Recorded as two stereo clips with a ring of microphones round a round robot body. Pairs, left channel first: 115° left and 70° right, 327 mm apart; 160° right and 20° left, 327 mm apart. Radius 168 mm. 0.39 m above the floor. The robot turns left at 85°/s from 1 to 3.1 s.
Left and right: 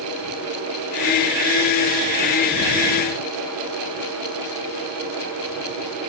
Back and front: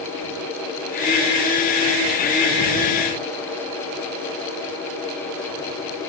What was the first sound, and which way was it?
Only background noise.